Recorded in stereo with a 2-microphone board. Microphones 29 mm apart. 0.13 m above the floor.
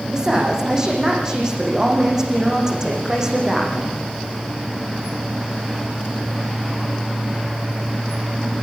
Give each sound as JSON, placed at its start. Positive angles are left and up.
{"t": 0.1, "sound": "a woman speaking", "side_deg": -20, "distance_m": 7.5}